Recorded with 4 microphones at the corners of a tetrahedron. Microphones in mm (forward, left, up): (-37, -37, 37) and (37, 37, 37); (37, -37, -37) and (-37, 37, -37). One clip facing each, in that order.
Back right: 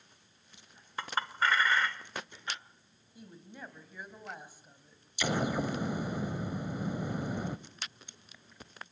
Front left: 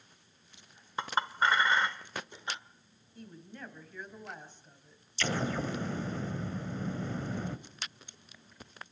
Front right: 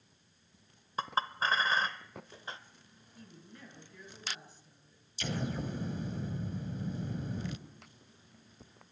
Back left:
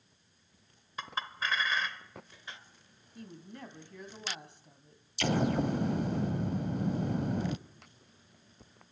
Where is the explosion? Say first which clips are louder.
Back right 2 dB, back left 8 dB; 150° left, 0.7 m.